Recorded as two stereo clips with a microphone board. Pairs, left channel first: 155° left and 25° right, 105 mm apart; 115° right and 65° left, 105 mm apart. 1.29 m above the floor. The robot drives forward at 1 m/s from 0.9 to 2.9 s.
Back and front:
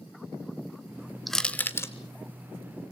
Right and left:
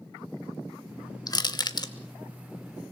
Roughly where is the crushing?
Behind right.